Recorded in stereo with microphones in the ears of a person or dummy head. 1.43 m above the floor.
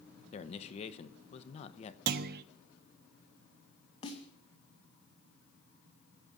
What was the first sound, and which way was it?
A man speaking, 35° left (ahead or behind).